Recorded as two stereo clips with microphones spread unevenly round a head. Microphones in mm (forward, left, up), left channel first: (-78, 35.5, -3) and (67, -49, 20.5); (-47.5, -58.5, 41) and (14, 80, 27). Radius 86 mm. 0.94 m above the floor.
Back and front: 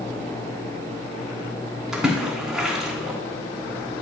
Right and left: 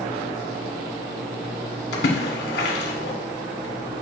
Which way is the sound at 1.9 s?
115° right.